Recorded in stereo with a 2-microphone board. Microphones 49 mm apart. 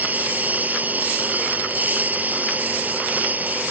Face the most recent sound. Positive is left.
turn(degrees=-35)  # may be behind; listen again after turning